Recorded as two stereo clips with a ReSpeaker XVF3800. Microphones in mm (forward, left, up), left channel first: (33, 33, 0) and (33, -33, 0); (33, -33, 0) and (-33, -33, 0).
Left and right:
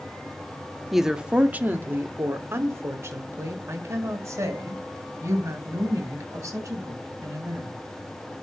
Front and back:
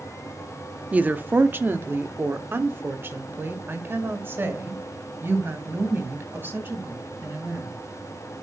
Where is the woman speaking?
175° right, 0.6 m; by 7.8 s 125° right, 4 m.